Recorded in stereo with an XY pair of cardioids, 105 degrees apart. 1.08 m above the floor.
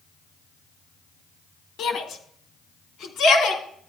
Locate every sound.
1.8 s a shout: 65° left, 1.5 m; by 3.6 s 75° left, 2.5 m